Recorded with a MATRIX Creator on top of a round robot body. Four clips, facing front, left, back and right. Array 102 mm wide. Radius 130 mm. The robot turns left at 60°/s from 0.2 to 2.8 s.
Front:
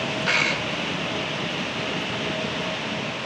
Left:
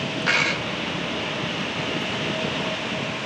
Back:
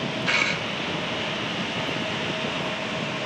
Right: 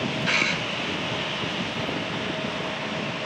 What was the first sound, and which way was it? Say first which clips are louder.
A dropped coin: left 3 dB, front 2 dB; 70° left.